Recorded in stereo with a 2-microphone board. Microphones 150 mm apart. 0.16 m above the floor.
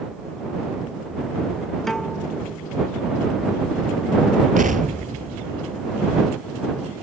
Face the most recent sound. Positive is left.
turn(degrees=-60)  # may be behind; listen again after turning